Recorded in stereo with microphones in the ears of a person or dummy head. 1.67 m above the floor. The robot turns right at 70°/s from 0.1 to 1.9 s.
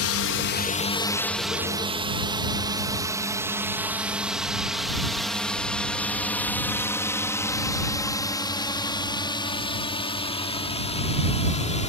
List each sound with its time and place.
0.0 s a drone: 60° left (ahead or behind); by 11.9 s 25° left (ahead or behind)